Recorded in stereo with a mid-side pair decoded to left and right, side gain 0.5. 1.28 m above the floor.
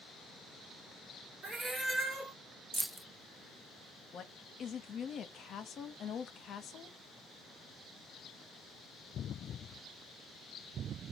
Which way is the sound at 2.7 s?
15° right.